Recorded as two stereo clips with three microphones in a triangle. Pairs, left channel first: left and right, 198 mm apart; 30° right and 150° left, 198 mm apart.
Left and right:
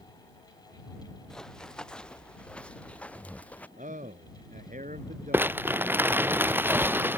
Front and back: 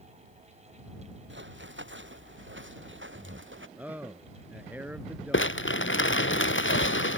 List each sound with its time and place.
1.3 s running footsteps: 175° left
3.8 s a man speaking: 130° right
5.3 s crumpling: 10° right